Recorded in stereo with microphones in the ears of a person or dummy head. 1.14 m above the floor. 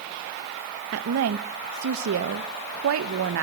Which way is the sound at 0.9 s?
75° right (ahead or behind).